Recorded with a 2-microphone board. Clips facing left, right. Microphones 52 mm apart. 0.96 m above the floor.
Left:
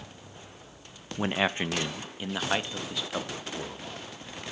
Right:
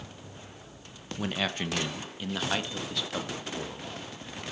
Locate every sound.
1.2 s a man speaking: 25° left (ahead or behind), 0.8 m; by 4.4 s 5° left (ahead or behind), 2.5 m